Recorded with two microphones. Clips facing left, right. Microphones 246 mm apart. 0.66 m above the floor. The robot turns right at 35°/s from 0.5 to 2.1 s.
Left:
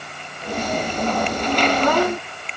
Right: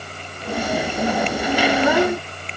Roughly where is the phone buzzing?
No phone buzzing in this recording.